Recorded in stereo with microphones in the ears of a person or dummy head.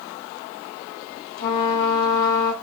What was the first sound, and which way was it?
A trumpet, 50° left (ahead or behind).